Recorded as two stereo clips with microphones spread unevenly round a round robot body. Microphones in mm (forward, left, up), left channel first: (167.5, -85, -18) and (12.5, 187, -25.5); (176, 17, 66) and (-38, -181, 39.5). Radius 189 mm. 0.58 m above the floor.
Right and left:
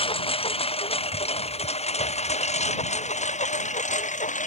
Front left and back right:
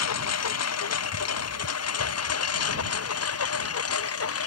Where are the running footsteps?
No running footsteps in this recording.